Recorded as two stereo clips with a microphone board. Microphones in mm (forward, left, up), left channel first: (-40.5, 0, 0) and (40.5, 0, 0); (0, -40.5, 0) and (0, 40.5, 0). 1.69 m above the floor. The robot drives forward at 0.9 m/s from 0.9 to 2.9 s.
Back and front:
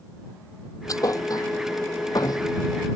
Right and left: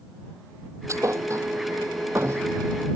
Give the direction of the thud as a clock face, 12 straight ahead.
7 o'clock.